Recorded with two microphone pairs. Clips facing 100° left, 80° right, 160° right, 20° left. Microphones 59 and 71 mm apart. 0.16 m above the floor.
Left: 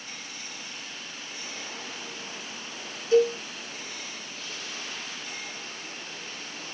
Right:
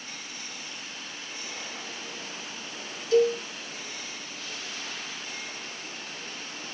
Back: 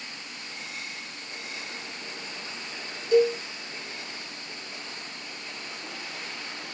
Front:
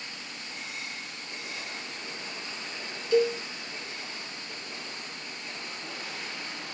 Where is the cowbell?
145° left, 1.3 m.